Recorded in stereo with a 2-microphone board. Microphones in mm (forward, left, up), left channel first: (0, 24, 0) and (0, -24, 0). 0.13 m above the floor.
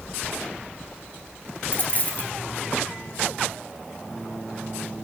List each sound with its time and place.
1.7 s a dropped coin: 40° left (ahead or behind), 1.1 m